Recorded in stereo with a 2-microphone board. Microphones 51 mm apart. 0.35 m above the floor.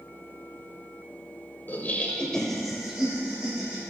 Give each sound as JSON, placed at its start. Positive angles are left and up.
{"t": 1.7, "sound": "laughter", "side_deg": 40, "distance_m": 1.2}